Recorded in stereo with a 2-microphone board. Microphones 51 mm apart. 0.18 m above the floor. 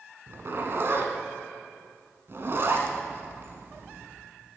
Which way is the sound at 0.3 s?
50° right (ahead or behind).